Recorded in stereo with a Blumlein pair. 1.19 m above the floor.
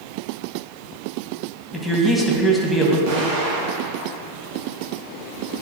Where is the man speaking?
5° left, 1.2 m.